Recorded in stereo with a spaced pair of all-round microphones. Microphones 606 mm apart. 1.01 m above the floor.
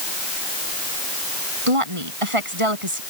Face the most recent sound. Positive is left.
turn(degrees=-55)  # may be behind; listen again after turning